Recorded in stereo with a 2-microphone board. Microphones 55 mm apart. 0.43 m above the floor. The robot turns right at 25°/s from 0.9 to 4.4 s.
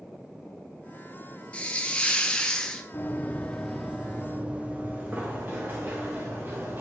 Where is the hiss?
20° left (ahead or behind), 0.8 m; by 2.8 s 10° left (ahead or behind), 0.8 m.